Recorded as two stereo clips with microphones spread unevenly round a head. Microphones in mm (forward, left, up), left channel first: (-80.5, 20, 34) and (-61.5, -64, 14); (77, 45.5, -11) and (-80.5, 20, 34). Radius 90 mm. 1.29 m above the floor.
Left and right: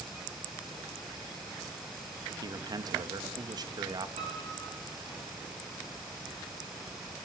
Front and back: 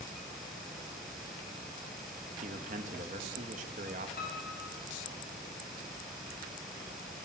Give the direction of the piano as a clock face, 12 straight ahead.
1 o'clock.